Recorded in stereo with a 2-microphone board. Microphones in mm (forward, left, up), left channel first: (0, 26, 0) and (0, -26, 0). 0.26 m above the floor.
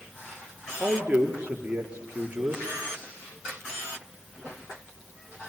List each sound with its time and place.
0.8 s a man speaking: 20° right (ahead or behind), 5.5 m